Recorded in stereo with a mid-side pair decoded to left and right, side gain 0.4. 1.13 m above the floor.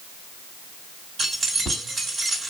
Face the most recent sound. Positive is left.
turn(degrees=-50)